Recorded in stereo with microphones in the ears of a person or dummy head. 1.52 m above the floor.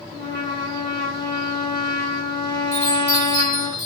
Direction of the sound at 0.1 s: 30° left (ahead or behind).